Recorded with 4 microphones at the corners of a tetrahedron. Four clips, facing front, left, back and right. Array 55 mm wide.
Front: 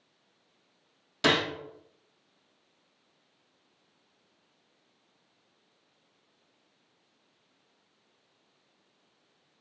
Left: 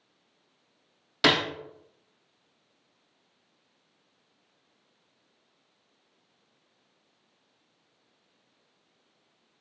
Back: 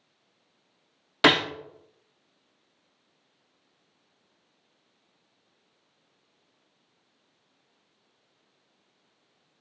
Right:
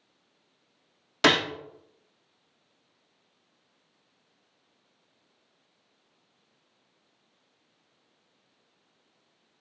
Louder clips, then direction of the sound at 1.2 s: Right 1 dB, back 5 dB; 170° right.